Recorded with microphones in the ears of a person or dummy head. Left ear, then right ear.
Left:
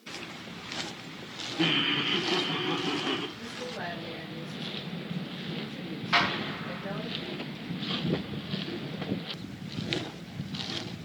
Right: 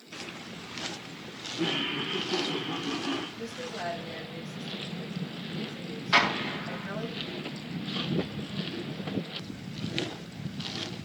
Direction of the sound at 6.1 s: 10° right (ahead or behind).